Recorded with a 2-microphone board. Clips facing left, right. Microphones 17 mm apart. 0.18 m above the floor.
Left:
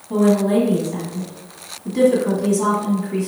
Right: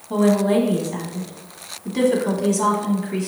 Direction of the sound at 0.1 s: 20° right (ahead or behind).